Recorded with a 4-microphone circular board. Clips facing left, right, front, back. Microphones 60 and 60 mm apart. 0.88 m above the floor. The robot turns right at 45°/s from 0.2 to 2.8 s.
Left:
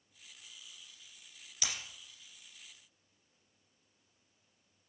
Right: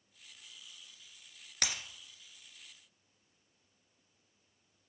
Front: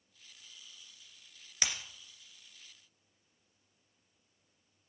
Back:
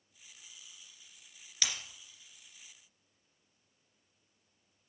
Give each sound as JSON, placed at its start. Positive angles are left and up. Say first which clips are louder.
{"t": 1.6, "sound": "breaking glass", "louder": "right 3 dB, front 1 dB", "azimuth_deg": -70, "distance_m": 2.0}